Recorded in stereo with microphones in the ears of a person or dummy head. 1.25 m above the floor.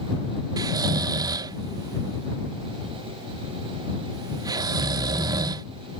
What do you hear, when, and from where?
0.6 s snoring: 20° right (ahead or behind)